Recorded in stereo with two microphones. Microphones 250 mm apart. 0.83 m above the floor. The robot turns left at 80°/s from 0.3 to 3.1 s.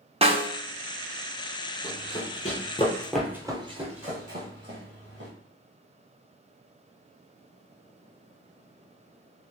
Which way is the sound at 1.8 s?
5° right (ahead or behind).